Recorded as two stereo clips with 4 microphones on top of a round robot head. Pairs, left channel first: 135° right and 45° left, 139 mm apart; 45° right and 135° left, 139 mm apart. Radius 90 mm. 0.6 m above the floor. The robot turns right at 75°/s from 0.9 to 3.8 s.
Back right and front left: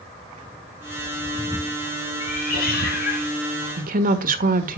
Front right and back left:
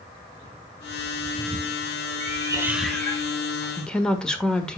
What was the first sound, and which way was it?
A cat meowing, 175° left.